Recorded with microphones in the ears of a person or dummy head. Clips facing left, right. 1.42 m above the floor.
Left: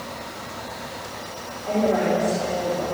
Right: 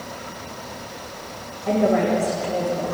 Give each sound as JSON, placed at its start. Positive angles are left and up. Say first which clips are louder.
{"t": 1.6, "sound": "a woman speaking", "louder": "right 2 dB", "side_deg": -40, "distance_m": 2.5}